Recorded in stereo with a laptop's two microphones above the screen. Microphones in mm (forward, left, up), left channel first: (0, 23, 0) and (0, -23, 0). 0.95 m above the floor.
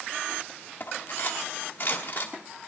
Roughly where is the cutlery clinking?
Left.